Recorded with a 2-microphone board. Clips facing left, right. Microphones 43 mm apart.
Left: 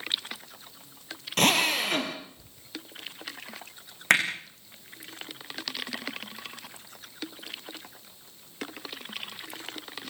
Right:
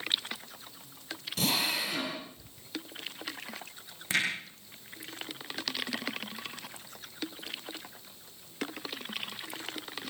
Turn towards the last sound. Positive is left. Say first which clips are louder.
# left 7 dB
turn(degrees=70)  # may be behind; listen again after turning